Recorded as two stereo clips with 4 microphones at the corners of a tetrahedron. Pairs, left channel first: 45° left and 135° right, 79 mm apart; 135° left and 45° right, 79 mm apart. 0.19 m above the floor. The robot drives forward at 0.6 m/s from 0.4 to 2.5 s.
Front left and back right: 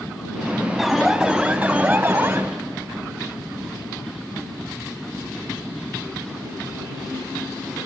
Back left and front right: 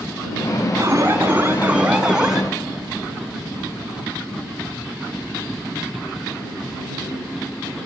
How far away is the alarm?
About 1.3 m.